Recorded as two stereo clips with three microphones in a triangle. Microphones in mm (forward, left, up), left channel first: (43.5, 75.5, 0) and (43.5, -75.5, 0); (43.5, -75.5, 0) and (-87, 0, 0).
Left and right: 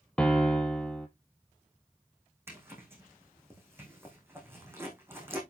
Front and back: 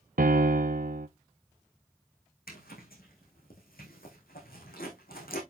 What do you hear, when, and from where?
0.2 s a piano: 175° left, 1.1 m
2.5 s a zipper: 15° right, 4.5 m